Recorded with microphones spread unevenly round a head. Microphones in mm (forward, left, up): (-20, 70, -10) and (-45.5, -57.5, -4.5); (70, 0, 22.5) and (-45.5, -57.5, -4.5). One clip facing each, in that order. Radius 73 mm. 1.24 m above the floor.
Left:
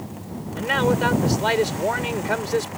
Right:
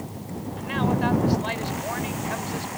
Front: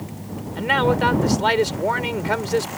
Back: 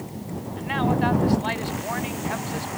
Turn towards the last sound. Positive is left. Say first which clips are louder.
# left 4 dB, front 4 dB
turn(degrees=45)